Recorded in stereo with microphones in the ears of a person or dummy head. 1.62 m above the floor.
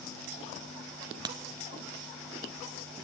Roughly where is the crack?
Right.